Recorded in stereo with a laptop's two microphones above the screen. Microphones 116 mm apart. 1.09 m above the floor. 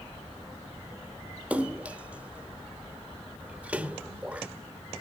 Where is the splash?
10° right (ahead or behind), 0.8 m.